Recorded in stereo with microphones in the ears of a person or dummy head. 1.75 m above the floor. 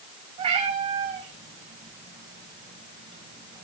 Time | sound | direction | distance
0.4 | a cat meowing | 30° right (ahead or behind) | 5.5 m